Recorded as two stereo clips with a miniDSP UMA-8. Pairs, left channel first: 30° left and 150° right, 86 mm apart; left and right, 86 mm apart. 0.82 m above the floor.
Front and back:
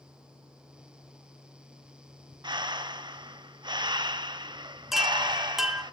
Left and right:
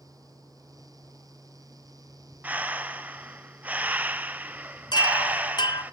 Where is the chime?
120° left, 1.1 m.